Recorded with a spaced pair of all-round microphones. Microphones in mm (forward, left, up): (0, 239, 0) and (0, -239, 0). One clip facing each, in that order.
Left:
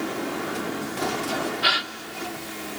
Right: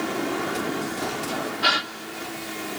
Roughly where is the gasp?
Right.